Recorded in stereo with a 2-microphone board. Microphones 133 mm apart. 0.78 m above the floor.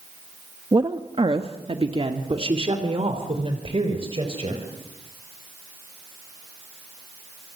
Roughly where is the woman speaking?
Right.